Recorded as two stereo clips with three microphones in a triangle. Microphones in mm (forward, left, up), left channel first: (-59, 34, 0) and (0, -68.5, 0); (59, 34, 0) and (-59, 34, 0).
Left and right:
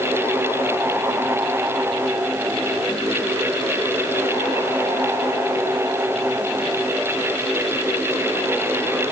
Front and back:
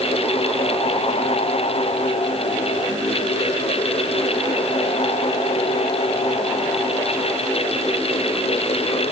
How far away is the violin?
I don't hear a violin.